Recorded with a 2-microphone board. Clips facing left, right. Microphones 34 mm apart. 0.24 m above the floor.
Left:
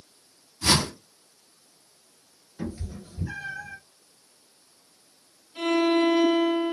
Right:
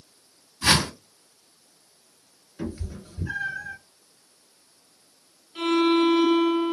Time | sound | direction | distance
0.6 | a whoosh | 50° right (ahead or behind) | 0.9 m
2.6 | a cat meowing | 20° right (ahead or behind) | 1.5 m
5.5 | a violin | 25° right (ahead or behind) | 1.4 m